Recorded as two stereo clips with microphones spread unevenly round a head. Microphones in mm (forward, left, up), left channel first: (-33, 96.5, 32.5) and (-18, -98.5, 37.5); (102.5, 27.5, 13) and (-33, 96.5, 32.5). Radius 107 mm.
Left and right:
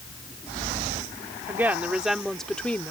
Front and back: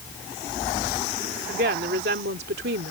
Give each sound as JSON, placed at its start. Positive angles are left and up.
{"t": 1.5, "sound": "a woman speaking", "azimuth_deg": -165}